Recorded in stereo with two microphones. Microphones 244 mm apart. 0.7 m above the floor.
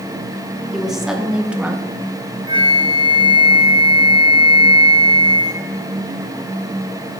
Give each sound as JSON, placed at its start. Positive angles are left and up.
{"t": 0.7, "sound": "a woman speaking", "side_deg": 0, "distance_m": 1.3}
{"t": 2.5, "sound": "a flute", "side_deg": -20, "distance_m": 0.6}